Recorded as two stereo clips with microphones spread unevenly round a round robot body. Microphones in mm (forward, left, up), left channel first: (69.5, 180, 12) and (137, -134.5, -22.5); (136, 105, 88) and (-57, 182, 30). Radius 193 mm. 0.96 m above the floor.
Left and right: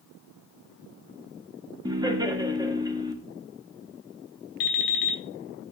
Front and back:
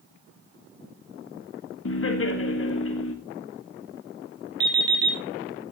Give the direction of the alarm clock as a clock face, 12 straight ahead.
9 o'clock.